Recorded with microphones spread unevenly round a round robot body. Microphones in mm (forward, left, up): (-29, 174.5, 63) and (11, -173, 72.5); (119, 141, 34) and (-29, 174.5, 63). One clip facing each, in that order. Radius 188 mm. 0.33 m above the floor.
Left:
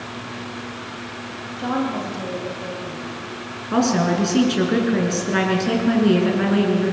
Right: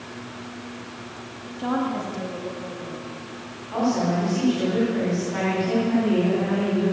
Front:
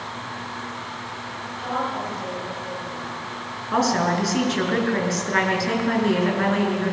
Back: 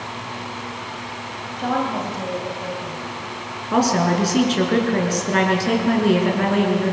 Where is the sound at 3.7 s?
105° left, 6 m.